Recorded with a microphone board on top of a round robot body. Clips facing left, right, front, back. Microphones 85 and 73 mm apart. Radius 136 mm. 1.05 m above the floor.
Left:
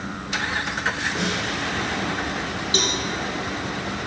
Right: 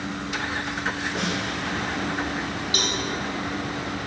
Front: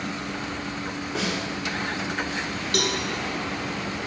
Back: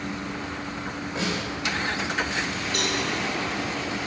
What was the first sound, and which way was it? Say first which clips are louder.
A snare drum: left 1 dB, even; straight ahead.